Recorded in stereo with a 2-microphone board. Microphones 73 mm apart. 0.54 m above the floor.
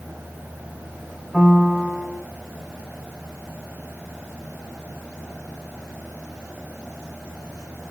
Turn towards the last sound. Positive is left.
turn(degrees=0)  # may be behind; listen again after turning